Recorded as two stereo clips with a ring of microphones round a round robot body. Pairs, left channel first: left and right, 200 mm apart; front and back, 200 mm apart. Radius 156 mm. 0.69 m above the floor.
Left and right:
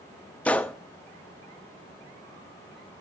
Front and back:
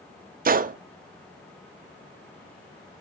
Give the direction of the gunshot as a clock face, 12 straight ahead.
6 o'clock.